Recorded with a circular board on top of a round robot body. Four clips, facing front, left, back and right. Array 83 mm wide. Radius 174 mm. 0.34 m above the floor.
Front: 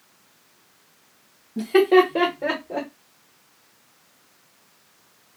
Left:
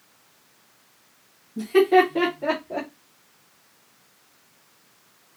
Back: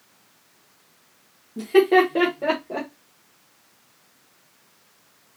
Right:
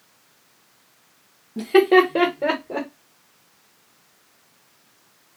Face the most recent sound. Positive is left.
turn(degrees=-115)